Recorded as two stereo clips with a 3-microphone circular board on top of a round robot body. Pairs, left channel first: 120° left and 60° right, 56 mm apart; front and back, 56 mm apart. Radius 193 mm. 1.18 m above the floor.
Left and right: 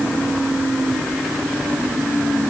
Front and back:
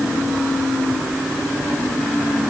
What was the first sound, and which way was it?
Only background noise.